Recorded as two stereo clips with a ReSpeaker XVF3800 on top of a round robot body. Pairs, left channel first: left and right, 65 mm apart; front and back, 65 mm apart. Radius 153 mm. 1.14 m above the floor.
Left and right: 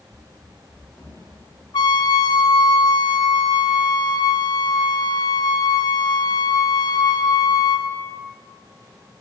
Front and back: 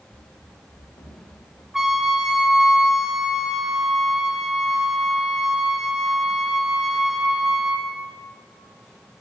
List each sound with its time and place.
0.1 s running footsteps: 5° right, 6 m; by 1.6 s 10° right, 7 m
1.7 s a trumpet: 95° left, 1.7 m